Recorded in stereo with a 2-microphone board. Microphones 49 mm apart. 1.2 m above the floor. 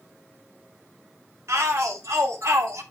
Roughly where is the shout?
Right.